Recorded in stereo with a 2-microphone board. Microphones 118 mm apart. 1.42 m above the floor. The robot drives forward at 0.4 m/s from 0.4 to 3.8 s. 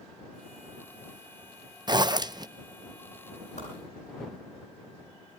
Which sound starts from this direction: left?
A whoosh, at 3.6 s.